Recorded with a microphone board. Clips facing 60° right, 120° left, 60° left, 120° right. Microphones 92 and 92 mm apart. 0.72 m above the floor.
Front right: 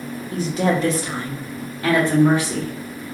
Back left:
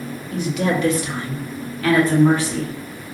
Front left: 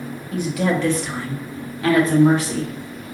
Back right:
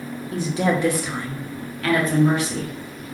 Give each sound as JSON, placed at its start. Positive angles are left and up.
{"t": 0.3, "sound": "a woman speaking", "azimuth_deg": -95, "distance_m": 0.8}